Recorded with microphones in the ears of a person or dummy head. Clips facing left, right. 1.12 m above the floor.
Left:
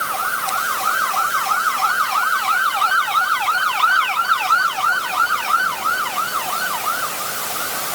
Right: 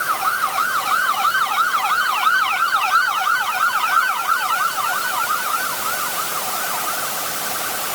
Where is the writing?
No writing in this recording.